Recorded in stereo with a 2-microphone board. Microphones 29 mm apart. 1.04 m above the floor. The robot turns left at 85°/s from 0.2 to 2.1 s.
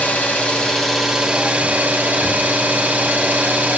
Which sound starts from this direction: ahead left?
An engine running, at 0.0 s.